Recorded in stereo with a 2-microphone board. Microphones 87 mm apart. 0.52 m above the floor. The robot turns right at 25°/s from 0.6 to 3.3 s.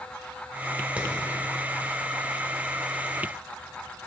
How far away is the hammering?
About 2 m.